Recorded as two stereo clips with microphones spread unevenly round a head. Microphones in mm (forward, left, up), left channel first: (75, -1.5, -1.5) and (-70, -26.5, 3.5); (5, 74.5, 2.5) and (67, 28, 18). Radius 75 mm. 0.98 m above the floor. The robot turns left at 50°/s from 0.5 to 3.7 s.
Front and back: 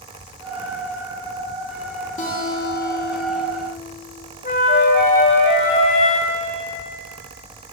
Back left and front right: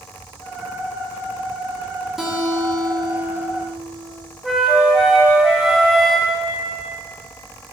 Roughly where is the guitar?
Ahead left.